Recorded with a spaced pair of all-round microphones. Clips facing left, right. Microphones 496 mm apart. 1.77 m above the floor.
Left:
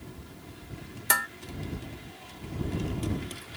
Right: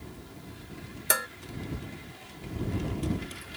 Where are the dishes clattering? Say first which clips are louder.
Right 4 dB; 20° left (ahead or behind).